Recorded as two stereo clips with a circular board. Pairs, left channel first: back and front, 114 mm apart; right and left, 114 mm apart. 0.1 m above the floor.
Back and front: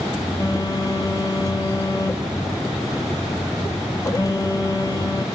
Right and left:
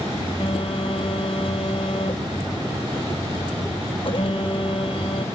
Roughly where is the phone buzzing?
Behind right.